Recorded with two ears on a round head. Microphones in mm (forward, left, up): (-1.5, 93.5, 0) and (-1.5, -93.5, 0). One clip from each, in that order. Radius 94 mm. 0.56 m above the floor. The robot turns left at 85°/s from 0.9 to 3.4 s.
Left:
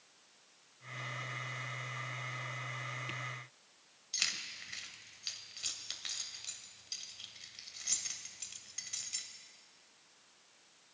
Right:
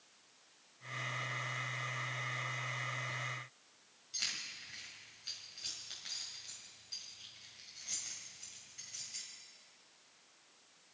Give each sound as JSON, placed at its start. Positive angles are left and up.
{"t": 4.1, "sound": "keys jangling", "side_deg": 55, "distance_m": 2.0}